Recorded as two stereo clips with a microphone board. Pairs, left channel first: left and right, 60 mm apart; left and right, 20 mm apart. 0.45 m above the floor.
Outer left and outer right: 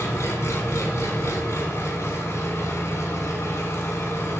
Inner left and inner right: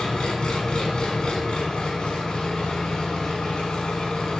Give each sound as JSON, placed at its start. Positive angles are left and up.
{"t": 0.0, "sound": "an engine running", "side_deg": 50, "distance_m": 1.2}